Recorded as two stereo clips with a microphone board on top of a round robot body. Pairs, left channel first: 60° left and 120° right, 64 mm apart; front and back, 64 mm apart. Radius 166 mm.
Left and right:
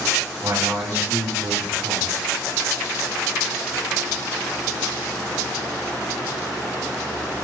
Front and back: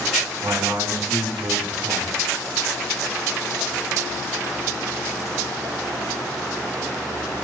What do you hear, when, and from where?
0.4 s a man speaking: 150° right, 3.5 m